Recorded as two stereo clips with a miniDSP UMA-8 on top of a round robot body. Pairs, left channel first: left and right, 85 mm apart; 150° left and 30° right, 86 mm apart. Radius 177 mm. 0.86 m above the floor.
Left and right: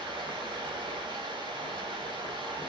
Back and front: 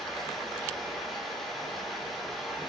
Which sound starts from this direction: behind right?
Running water, at 0.0 s.